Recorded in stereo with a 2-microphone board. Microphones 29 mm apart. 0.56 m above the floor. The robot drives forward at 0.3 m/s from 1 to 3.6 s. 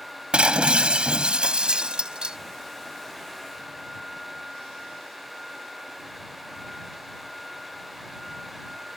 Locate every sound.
0.3 s breaking glass: 40° right (ahead or behind); by 2.4 s 35° right (ahead or behind)